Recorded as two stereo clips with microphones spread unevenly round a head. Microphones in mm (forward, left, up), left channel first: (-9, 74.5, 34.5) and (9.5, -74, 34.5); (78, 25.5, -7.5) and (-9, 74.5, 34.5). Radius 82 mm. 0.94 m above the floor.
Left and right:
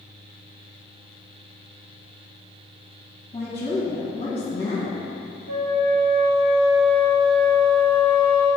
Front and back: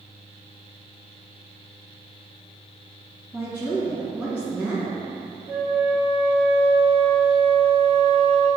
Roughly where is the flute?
Right.